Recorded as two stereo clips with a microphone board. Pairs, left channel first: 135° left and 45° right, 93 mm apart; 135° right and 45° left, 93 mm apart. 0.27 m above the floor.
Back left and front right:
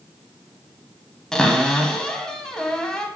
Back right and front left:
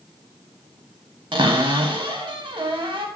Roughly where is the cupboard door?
Ahead left.